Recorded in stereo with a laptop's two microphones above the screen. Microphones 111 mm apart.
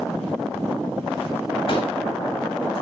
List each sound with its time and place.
1.7 s a pop: 55° left (ahead or behind), 8.5 m